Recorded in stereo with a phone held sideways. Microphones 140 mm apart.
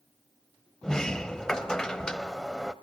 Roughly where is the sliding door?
Centre.